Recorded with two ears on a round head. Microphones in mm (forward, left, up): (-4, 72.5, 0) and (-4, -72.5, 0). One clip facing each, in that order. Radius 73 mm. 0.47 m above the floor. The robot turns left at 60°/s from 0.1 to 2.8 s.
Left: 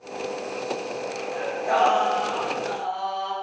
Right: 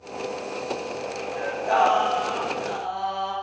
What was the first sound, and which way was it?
Singing, 45° left.